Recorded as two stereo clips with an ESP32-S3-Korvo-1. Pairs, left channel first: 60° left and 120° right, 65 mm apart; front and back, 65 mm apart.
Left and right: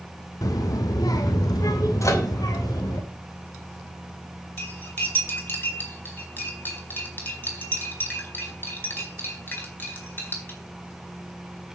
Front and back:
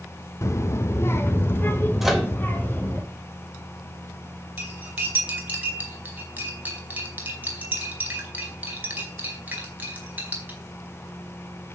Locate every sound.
0.4 s a child speaking: 40° left, 1.0 m; by 3.0 s 60° left, 2.5 m
2.0 s a microwave: 95° left, 3 m
4.6 s cutlery clinking: 120° left, 4.5 m